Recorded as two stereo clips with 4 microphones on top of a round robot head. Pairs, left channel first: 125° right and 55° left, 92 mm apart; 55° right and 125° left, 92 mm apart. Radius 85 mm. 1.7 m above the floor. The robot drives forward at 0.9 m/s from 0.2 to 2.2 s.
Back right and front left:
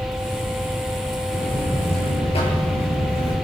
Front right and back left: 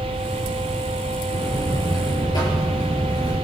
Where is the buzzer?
95° right, 6.5 m; by 3.4 s 100° right, 7 m.